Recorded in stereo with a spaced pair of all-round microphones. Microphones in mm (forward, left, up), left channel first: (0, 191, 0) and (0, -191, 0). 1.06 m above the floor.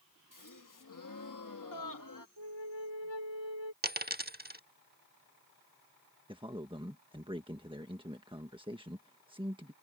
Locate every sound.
0.3 s a gasp: 55° left (ahead or behind)
2.4 s a flute: 70° right (ahead or behind)
3.8 s a dropped coin: 25° right (ahead or behind)
6.3 s a man speaking: 15° right (ahead or behind)